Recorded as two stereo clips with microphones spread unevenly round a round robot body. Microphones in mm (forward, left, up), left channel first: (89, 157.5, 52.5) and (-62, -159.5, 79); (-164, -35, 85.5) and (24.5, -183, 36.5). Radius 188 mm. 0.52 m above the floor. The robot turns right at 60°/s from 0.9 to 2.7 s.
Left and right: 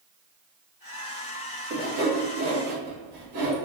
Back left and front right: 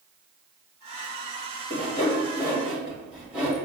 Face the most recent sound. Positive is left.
turn(degrees=-110)